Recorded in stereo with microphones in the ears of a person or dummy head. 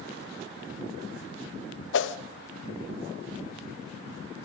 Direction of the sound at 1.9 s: 80° left.